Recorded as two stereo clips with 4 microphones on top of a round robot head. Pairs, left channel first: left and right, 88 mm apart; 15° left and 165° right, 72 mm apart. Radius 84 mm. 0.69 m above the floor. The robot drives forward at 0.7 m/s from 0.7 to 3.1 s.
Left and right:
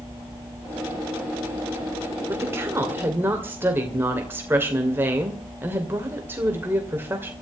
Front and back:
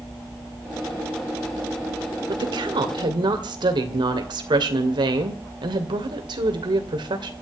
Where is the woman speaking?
150° right, 2 m; by 7.3 s 155° right, 2.5 m.